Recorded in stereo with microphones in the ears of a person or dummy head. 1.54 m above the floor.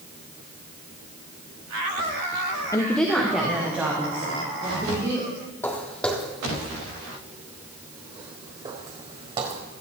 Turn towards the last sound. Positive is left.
turn(degrees=-40)  # may be behind; listen again after turning